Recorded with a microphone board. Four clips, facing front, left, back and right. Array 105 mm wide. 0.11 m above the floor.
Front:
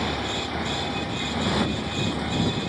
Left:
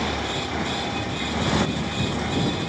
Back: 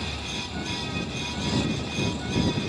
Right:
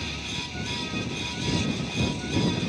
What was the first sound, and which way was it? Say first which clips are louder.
A motorcycle: left 10 dB, front 7 dB; 55° left.